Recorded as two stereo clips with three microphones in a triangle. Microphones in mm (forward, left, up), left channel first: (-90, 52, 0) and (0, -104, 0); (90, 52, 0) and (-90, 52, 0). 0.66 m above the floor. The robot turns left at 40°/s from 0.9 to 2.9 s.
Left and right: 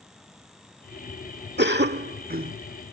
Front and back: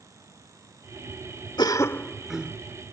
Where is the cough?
65° right; by 2.6 s 105° right.